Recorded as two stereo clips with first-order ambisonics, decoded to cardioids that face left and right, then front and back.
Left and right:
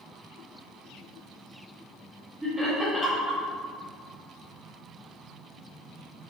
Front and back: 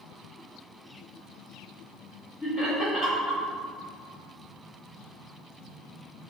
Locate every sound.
2.4 s laughter: 10° right, 1.1 m